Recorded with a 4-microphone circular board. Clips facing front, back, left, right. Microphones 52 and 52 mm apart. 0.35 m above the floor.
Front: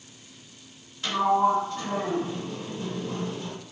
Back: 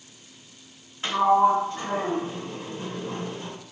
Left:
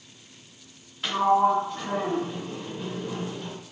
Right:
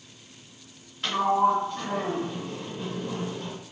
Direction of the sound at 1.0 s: 175° left.